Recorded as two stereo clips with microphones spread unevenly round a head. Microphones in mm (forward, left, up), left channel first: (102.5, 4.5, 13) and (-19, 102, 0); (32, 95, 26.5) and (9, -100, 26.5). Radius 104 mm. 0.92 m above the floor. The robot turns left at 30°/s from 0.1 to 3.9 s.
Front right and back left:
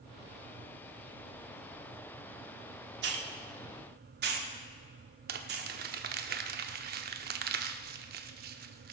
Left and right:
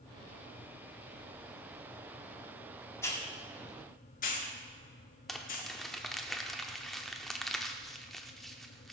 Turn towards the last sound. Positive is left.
turn(degrees=170)